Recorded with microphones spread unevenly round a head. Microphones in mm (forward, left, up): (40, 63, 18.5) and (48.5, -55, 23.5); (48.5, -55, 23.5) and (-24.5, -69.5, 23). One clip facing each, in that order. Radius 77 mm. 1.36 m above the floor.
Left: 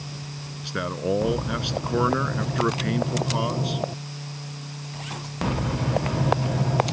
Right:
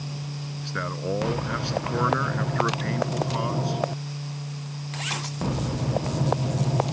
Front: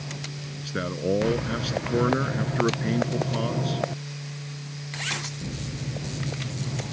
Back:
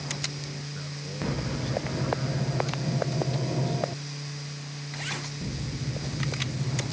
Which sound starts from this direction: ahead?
A man speaking, at 0.6 s.